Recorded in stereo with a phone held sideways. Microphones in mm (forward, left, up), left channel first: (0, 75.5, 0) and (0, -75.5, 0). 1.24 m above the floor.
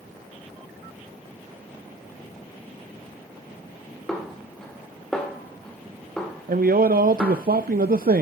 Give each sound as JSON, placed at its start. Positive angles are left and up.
{"t": 4.1, "sound": "a snare drum", "side_deg": 5, "distance_m": 2.0}
{"t": 6.5, "sound": "a man speaking", "side_deg": -70, "distance_m": 0.5}